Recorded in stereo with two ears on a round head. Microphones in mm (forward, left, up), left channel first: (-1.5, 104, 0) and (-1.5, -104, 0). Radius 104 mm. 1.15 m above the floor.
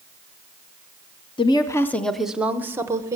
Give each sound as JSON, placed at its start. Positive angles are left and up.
{"t": 1.4, "sound": "a woman speaking", "side_deg": 25, "distance_m": 0.6}